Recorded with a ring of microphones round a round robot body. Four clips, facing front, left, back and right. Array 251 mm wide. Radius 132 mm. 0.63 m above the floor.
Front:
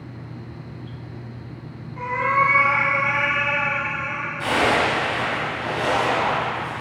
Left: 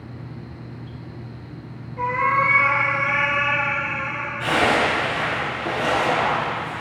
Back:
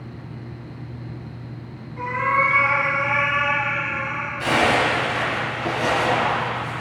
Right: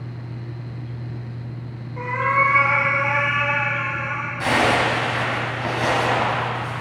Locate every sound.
2.0 s a cat meowing: 85° right, 6 m; by 4.3 s 90° right, 7 m
4.4 s a zipper: 90° right, 4.5 m